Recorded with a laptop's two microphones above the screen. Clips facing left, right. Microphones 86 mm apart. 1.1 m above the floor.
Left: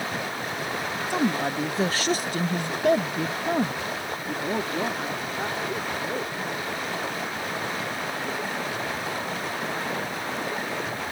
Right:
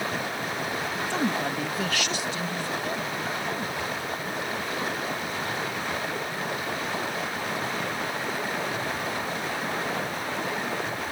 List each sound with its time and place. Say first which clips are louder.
1.1 s a woman speaking: left 3 dB; 15° left (ahead or behind); by 6.3 s 40° left (ahead or behind)